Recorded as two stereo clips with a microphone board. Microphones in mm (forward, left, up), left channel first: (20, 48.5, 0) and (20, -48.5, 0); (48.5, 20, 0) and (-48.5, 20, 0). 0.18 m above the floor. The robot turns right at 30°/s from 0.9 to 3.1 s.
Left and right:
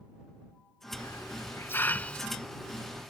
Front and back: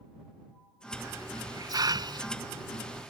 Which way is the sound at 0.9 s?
125° left.